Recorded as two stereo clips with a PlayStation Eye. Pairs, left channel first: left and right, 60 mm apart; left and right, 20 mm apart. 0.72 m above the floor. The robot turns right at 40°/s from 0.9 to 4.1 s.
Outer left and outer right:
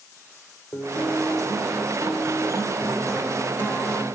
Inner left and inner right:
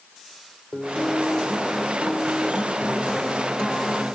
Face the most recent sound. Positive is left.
turn(degrees=165)